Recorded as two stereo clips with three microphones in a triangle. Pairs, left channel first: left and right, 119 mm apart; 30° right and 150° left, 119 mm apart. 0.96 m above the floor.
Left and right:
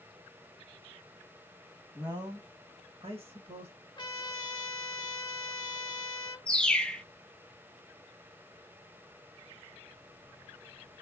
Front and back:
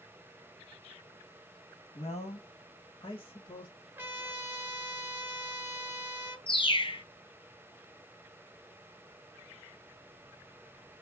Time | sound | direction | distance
1.9 | a man speaking | 30° right | 1.4 m
4.0 | a trumpet | 90° left | 0.6 m
6.5 | a bird | 10° left | 0.6 m